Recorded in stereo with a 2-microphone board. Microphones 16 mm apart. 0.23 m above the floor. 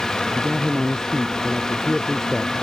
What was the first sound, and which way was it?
A man speaking, 20° left (ahead or behind).